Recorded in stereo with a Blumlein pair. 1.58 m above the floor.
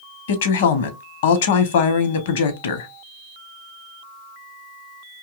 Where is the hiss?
I don't hear a hiss.